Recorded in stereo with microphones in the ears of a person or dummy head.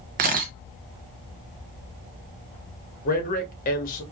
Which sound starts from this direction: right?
A camera shutter, at 0.2 s.